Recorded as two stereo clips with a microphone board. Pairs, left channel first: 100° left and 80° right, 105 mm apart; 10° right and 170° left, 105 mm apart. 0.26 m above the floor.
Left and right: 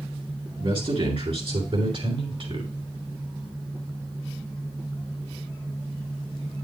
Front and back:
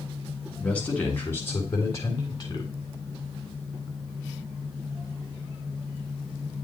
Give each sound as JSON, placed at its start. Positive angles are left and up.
{"t": 0.6, "sound": "a man speaking", "azimuth_deg": -90, "distance_m": 3.0}